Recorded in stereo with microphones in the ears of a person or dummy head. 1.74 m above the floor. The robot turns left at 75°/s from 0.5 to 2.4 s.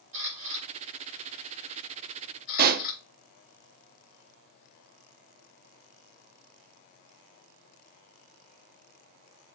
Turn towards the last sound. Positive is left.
turn(degrees=-50)  # may be behind; listen again after turning